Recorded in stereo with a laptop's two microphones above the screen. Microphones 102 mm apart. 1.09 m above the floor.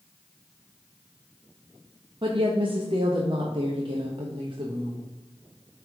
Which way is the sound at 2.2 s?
50° right (ahead or behind).